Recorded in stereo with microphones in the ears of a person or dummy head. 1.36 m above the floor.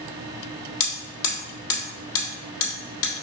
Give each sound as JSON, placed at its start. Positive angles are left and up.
{"t": 0.8, "sound": "hammering", "side_deg": 65, "distance_m": 1.7}